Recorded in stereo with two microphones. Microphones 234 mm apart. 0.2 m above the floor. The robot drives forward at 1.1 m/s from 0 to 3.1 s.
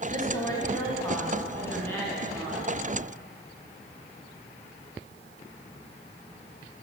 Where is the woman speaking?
20° left (ahead or behind), 1.3 m; by 2.7 s 5° left (ahead or behind), 3 m.